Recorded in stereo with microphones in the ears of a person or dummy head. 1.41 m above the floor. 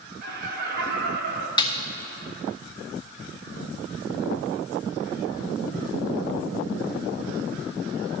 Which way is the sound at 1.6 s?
25° left (ahead or behind).